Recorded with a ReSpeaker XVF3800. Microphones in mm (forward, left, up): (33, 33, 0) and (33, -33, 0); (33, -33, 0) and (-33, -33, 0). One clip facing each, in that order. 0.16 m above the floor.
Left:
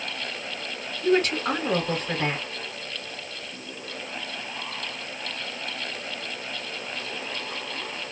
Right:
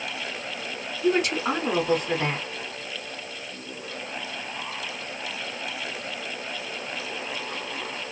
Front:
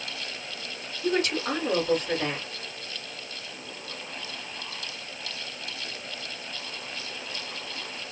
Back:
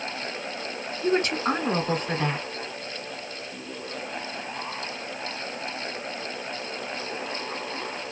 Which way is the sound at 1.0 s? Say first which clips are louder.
Left 1 dB, back 3 dB; 160° right.